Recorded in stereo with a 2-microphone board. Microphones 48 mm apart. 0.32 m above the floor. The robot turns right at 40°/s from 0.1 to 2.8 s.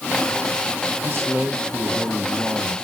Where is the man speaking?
100° right, 1.6 m; by 2.8 s 30° right, 1.6 m.